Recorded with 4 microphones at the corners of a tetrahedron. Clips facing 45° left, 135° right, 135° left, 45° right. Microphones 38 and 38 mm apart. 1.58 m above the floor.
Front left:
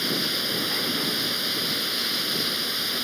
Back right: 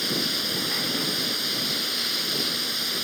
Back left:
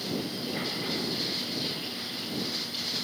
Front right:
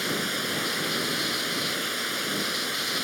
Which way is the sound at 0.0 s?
40° right.